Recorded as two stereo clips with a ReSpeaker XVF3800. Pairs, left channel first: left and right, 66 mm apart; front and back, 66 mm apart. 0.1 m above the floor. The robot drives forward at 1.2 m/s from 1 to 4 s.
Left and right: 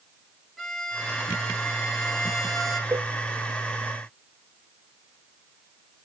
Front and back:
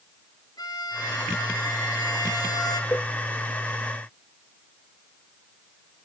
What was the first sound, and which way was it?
A violin, straight ahead.